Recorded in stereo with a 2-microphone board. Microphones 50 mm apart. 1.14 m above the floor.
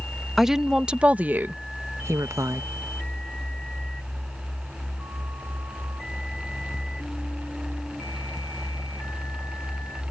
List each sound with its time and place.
0.4 s a woman speaking: 5° right (ahead or behind); by 2.6 s 85° right